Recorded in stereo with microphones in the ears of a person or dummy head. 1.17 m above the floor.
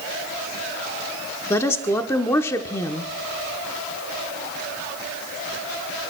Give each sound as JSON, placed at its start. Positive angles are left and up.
{"t": 1.5, "sound": "a woman speaking", "side_deg": 15, "distance_m": 0.9}